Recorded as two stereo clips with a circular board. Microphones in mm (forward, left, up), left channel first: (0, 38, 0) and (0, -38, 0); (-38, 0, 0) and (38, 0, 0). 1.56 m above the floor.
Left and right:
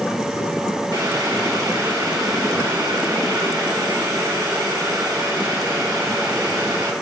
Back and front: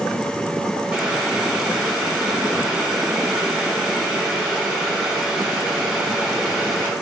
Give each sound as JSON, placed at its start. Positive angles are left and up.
{"t": 0.9, "sound": "boiling", "azimuth_deg": -80, "distance_m": 4.5}